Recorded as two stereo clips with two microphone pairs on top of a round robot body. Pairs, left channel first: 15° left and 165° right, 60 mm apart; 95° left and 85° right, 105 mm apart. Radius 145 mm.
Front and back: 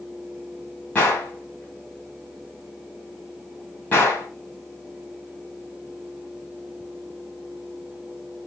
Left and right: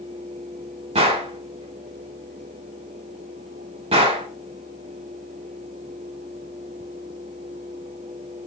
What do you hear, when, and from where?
0.9 s a gunshot: 55° right, 0.6 m